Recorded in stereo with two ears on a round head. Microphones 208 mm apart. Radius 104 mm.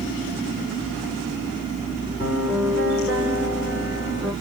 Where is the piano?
5° right (ahead or behind), 2.5 m.